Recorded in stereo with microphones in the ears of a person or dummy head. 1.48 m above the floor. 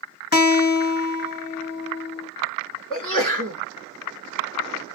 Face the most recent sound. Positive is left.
turn(degrees=35)  # may be behind; listen again after turning